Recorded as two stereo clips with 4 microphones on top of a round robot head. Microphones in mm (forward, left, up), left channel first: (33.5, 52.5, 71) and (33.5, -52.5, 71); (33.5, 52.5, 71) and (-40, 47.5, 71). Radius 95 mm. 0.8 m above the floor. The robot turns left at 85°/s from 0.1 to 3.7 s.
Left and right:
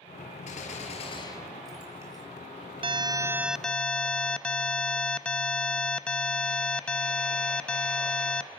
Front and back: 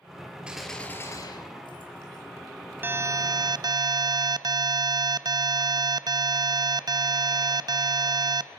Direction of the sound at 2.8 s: 115° right.